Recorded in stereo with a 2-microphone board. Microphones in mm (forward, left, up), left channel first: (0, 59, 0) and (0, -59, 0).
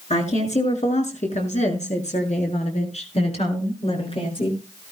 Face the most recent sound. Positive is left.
turn(degrees=45)  # may be behind; listen again after turning